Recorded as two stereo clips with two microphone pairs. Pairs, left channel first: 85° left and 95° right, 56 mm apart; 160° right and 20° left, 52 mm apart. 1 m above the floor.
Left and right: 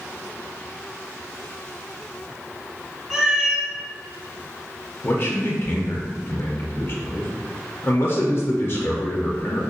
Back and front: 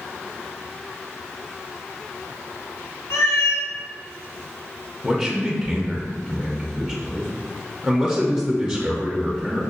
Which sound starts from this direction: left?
A man speaking, at 5.0 s.